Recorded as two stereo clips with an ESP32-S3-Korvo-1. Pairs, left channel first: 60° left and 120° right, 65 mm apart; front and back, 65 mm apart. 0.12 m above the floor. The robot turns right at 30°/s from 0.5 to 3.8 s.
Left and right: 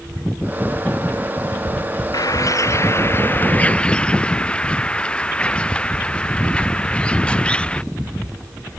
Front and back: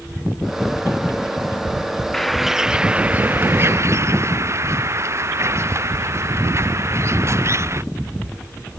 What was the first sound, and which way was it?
A bird, 85° left.